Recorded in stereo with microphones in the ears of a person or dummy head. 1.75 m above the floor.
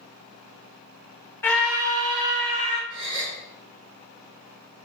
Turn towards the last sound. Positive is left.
turn(degrees=-35)  # may be behind; listen again after turning